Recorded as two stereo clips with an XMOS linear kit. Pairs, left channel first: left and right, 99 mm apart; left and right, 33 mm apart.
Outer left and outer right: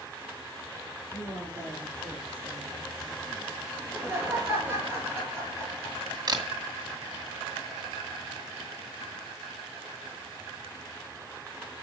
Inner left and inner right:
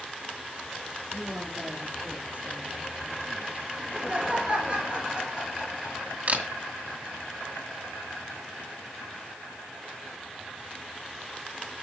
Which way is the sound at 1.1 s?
45° right (ahead or behind).